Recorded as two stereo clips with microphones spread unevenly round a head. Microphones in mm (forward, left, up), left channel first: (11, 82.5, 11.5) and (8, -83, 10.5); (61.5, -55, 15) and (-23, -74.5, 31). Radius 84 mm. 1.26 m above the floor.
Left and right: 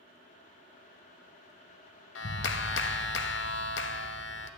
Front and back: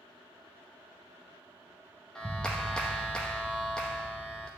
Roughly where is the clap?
Left.